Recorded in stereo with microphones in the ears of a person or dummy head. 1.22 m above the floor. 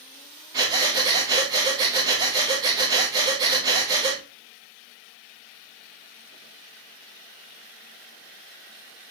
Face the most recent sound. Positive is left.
turn(degrees=-20)  # may be behind; listen again after turning